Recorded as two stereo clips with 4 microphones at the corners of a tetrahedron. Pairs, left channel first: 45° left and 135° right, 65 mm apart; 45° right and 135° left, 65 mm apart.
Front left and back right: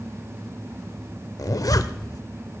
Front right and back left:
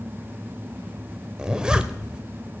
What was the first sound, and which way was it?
A zipper, 60° left.